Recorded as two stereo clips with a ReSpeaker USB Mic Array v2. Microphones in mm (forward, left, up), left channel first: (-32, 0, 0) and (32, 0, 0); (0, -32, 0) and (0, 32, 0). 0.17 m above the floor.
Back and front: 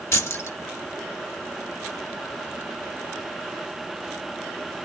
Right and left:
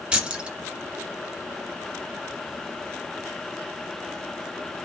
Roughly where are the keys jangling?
Behind left.